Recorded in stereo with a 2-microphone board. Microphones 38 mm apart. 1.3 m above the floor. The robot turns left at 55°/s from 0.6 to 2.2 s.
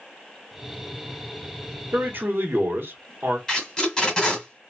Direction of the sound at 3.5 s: 15° left (ahead or behind).